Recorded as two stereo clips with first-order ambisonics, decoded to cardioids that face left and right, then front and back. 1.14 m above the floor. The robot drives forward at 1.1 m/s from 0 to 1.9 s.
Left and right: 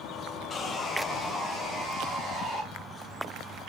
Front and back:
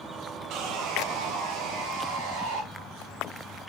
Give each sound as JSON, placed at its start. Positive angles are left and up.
{"t": 0.5, "sound": "sawing", "azimuth_deg": 155, "distance_m": 1.3}